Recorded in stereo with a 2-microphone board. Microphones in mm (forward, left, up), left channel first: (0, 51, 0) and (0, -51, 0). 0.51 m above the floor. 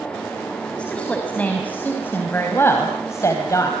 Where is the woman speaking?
10° left (ahead or behind), 4 m; by 3.7 s 35° left (ahead or behind), 3.5 m.